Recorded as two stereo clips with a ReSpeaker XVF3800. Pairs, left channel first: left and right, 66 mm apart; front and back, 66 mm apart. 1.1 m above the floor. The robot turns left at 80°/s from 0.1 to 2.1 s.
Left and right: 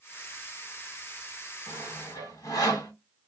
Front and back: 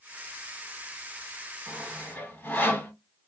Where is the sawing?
95° left, 2 m; by 2.9 s 60° left, 2 m.